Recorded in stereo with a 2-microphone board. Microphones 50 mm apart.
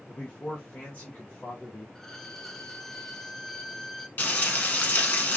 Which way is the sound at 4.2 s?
30° left (ahead or behind).